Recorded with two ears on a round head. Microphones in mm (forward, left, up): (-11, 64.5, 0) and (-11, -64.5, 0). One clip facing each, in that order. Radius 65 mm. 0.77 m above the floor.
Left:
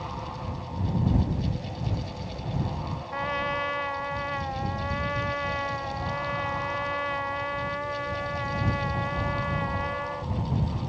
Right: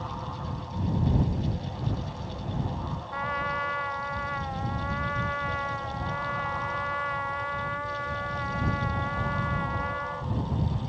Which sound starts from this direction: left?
A trumpet, at 3.1 s.